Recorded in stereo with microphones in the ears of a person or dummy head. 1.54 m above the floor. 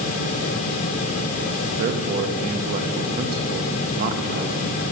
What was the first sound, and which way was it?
A man speaking, 45° right (ahead or behind).